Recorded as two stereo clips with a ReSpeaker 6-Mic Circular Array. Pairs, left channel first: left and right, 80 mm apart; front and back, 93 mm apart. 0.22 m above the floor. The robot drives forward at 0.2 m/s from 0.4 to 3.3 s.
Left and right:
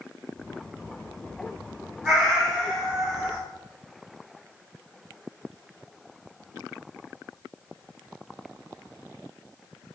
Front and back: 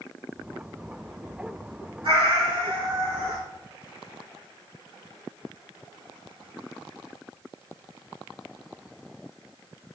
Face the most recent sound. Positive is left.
turn(degrees=-175)